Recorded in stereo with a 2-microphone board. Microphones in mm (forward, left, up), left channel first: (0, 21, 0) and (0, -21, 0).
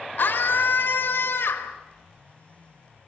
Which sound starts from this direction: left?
A scream, at 0.2 s.